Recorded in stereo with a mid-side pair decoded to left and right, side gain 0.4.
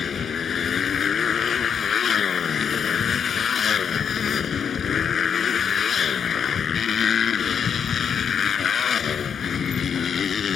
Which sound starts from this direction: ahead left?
A motorcycle, at 0.0 s.